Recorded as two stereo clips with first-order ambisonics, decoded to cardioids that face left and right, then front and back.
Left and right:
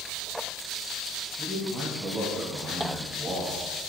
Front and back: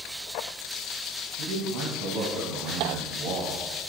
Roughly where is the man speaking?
Behind.